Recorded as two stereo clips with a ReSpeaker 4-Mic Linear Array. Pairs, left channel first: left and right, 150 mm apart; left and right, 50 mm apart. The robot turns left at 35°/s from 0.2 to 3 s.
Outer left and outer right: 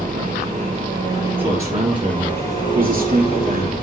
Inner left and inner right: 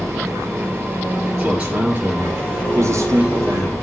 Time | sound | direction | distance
0.0 | an engine running | 120° right | 4 m
1.4 | a man speaking | 15° right | 3.5 m